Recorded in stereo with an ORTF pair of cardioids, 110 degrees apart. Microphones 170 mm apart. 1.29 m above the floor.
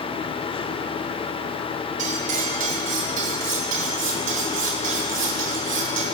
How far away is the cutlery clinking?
About 3 m.